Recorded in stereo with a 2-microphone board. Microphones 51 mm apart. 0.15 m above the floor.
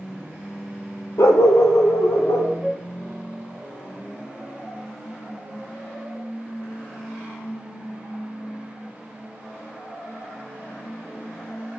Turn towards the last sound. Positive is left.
turn(degrees=10)  # may be behind; listen again after turning